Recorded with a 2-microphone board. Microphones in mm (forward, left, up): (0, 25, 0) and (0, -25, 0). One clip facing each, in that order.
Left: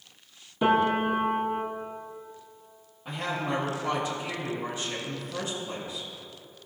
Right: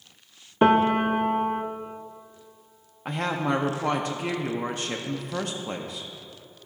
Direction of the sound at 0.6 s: 50° right (ahead or behind).